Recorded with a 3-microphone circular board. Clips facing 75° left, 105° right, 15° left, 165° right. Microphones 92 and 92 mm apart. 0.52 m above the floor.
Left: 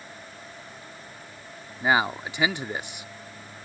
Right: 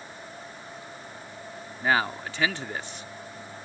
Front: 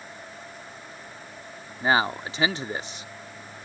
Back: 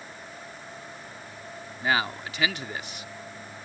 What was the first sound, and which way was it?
A man speaking, 15° left.